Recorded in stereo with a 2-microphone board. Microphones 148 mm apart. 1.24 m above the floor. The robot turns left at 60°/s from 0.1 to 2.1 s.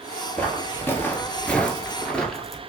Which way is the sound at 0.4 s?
10° left (ahead or behind).